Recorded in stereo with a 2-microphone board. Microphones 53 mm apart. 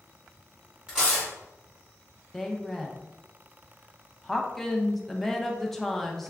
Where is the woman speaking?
5° left (ahead or behind), 0.5 m.